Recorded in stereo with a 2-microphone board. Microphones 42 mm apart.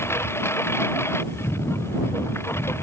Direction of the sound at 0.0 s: 80° left.